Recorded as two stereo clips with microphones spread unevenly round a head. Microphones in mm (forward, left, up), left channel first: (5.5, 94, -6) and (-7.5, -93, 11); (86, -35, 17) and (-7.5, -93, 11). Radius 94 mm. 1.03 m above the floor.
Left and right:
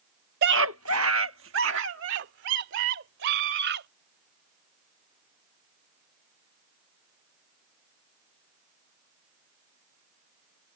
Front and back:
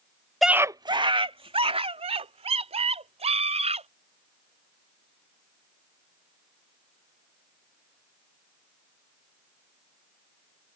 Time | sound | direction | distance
0.4 | a scream | 60° right | ?